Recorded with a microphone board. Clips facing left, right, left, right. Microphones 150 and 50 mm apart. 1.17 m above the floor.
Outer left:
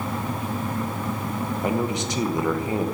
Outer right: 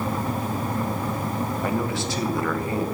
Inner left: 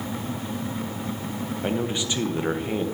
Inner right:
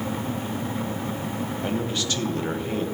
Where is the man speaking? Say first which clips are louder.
Outer left 4 dB, inner left 2 dB; 20° left (ahead or behind), 0.9 m.